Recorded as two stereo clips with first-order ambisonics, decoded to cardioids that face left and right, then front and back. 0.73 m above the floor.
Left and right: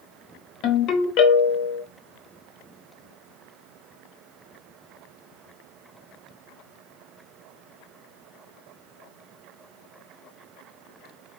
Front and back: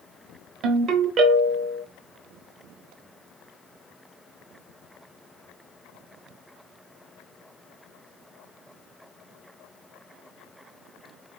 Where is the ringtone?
125° left, 0.9 m.